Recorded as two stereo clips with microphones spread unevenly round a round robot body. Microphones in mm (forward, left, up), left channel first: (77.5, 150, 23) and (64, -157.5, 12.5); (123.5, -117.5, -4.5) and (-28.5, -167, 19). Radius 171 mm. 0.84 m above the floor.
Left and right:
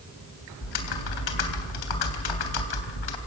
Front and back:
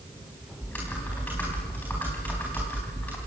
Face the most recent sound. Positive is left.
turn(degrees=105)